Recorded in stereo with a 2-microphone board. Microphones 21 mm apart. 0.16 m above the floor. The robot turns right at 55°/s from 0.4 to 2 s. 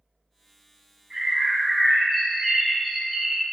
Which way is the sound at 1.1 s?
50° right.